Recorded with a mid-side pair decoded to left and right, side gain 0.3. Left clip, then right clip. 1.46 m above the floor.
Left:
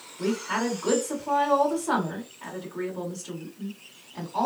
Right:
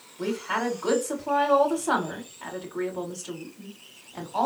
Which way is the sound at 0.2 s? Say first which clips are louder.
Even; 50° right.